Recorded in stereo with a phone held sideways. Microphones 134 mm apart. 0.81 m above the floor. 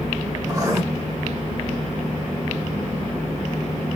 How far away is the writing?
About 1.6 m.